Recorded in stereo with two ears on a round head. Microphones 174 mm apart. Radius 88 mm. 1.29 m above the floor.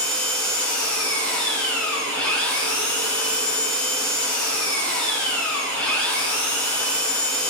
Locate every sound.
0.0 s an engine running: 5° left (ahead or behind), 5 m